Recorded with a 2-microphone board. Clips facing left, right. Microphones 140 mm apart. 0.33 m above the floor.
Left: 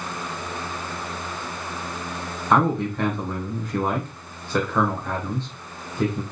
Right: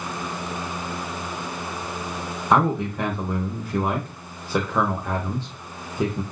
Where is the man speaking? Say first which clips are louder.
Even; 10° right (ahead or behind), 0.9 m.